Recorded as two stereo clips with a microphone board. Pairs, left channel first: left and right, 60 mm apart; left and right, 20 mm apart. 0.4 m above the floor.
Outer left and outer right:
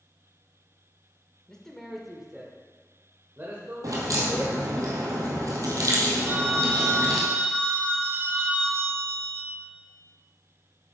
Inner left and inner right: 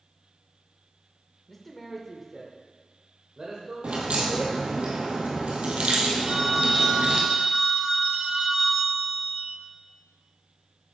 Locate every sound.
1.5 s a man speaking: 15° left (ahead or behind), 1.1 m; by 4.7 s 45° right (ahead or behind), 1.9 m
3.8 s a crack: 75° right (ahead or behind), 1.7 m
6.2 s a phone ringing: 45° right (ahead or behind), 1.4 m